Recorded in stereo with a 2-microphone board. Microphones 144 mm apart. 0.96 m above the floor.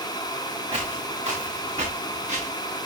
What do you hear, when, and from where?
0.7 s footsteps: 45° right (ahead or behind), 5 m; by 2.5 s 55° right (ahead or behind), 6.5 m